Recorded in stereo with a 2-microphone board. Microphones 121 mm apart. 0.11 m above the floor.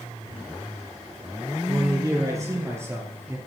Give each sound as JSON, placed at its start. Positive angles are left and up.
{"t": 1.6, "sound": "a man speaking", "side_deg": -30, "distance_m": 3.0}